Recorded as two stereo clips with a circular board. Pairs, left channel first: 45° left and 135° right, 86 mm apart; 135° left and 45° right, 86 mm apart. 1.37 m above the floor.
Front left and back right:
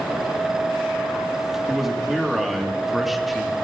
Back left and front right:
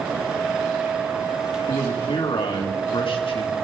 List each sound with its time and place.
1.7 s a man speaking: 135° left, 2 m